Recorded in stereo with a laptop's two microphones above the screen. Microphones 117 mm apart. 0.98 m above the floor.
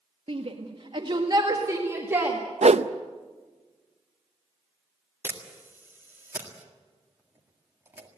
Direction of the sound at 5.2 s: 20° right (ahead or behind).